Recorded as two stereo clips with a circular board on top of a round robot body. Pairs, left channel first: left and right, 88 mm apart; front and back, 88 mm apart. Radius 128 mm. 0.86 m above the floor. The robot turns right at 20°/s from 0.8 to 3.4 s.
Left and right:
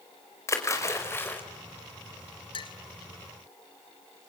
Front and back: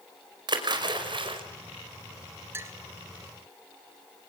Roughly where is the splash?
Behind left.